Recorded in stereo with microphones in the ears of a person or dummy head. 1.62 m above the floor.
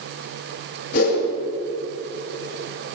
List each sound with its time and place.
0.9 s a whoosh: 65° left (ahead or behind), 5 m